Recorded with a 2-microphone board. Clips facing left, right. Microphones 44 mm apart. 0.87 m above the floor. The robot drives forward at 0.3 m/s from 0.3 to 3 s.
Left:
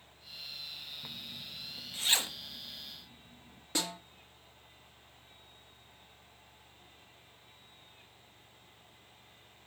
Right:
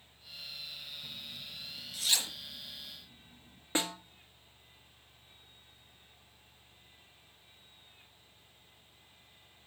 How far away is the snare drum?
About 1.4 m.